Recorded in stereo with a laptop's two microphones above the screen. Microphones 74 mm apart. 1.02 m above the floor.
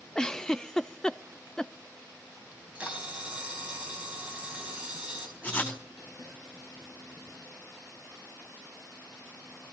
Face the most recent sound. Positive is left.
turn(degrees=20)  # may be behind; listen again after turning